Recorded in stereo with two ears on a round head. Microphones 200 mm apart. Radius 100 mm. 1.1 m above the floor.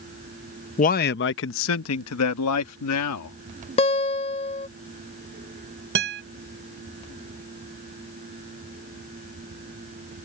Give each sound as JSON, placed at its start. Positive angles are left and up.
{"t": 0.8, "sound": "a man speaking", "side_deg": 35}
{"t": 3.8, "sound": "a guitar", "side_deg": 25}
{"t": 6.0, "sound": "a guitar", "side_deg": -55}